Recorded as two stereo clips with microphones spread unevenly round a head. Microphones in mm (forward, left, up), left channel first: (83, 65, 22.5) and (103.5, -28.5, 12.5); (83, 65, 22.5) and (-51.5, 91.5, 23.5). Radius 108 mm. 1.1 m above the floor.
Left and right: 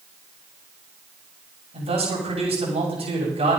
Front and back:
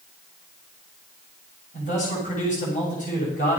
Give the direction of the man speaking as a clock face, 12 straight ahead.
2 o'clock.